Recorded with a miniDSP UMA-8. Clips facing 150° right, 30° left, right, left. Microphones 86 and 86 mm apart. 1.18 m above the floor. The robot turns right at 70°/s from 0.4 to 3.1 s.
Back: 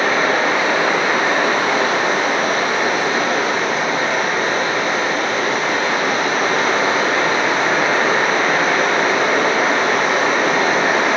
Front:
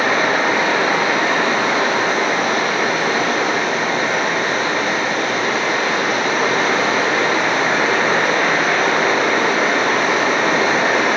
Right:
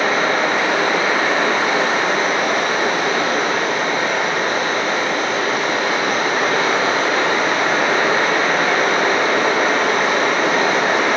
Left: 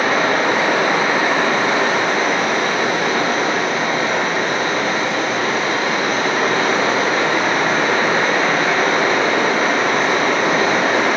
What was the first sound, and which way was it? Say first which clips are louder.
Running water: even, left 1 dB; 105° left.